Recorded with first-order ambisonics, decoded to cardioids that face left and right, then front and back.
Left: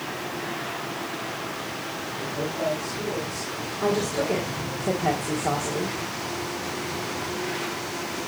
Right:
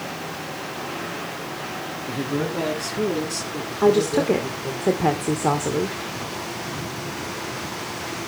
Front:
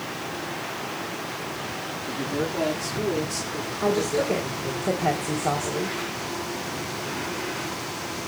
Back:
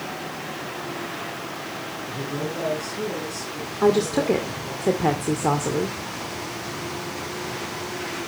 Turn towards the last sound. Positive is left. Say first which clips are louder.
# right 7 dB, back 4 dB
turn(degrees=-140)